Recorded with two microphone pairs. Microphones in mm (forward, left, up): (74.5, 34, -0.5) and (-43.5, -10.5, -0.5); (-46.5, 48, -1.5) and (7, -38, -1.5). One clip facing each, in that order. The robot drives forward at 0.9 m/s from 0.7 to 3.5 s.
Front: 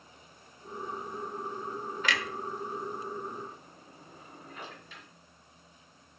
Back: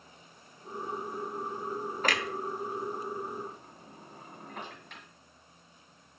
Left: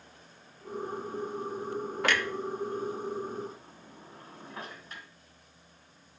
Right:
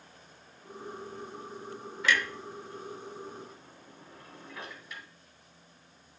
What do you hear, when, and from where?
2.0 s a clunk: 155° left, 0.6 m; by 5.0 s 170° left, 1.9 m